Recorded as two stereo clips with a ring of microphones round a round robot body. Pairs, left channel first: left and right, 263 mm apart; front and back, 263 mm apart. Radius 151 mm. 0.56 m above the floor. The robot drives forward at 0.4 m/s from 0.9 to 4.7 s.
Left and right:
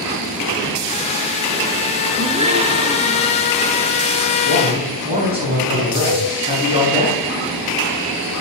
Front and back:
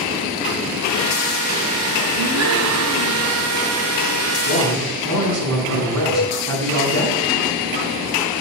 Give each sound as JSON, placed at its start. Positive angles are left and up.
{"t": 2.2, "sound": "a gasp", "azimuth_deg": -155, "distance_m": 1.2}
{"t": 4.5, "sound": "a man speaking", "azimuth_deg": -160, "distance_m": 5.5}
{"t": 6.1, "sound": "a cowbell", "azimuth_deg": -115, "distance_m": 5.0}